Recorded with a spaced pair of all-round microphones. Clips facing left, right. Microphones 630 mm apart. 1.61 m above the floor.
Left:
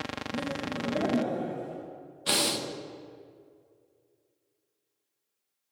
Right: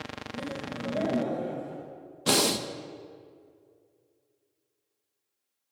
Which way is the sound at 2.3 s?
70° right (ahead or behind).